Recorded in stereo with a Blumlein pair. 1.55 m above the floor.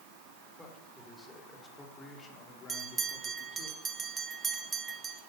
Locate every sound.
0.6 s a man speaking: straight ahead, 5 m; by 3.7 s 40° left, 3.5 m
2.7 s a bell: 20° right, 1.7 m